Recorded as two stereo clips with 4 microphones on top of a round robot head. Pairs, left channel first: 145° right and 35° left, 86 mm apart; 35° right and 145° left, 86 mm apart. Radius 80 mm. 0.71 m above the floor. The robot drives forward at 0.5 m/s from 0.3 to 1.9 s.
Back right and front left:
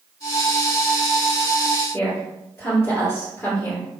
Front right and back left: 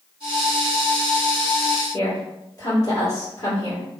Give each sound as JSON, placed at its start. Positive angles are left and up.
{"t": 1.9, "sound": "a woman speaking", "azimuth_deg": -85, "distance_m": 2.0}